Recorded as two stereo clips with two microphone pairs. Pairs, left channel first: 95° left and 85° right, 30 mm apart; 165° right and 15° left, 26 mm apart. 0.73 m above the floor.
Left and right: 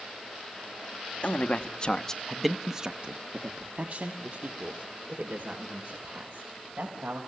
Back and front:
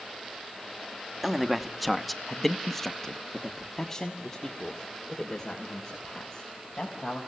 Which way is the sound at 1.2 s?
100° left.